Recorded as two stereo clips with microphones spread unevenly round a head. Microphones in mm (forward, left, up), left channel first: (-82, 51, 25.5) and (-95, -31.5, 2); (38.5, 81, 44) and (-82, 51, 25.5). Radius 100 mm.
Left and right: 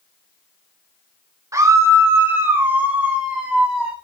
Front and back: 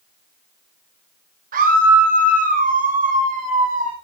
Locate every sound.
1.5 s a scream: 150° right, 2.5 m; by 3.9 s 170° left, 2.5 m